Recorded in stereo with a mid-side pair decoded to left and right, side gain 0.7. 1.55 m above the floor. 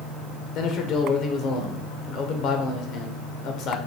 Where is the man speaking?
50° left, 1.2 m.